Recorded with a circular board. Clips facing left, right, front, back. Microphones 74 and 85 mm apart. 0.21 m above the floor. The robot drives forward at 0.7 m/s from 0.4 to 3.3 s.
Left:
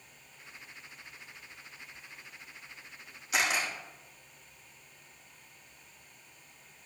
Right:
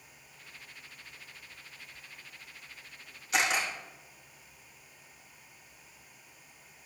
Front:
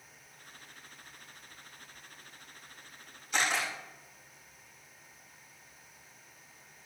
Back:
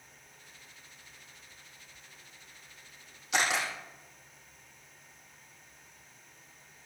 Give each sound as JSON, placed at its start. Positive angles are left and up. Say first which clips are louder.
{"t": 3.3, "sound": "a camera shutter", "louder": "right 1 dB, back 1 dB", "azimuth_deg": 175, "distance_m": 3.5}